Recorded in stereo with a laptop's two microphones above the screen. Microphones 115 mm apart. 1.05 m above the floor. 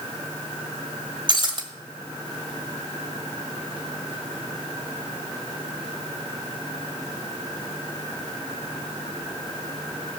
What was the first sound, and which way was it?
Breaking glass, 45° right (ahead or behind).